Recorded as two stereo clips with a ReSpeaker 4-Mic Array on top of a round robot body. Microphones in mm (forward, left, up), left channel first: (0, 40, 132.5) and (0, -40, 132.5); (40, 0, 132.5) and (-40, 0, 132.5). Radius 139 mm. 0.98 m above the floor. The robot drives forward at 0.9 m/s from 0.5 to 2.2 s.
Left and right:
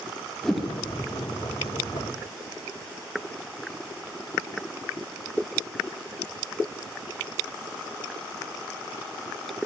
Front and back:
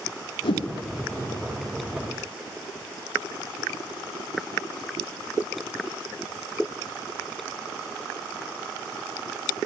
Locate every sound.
0.4 s a whoosh: 5° left, 0.9 m